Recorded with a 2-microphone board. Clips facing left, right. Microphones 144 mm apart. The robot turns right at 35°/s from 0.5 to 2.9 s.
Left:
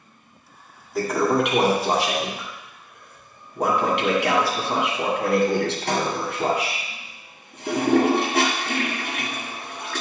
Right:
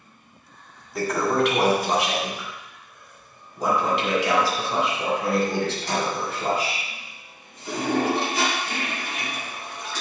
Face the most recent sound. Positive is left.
turn(degrees=70)  # may be behind; listen again after turning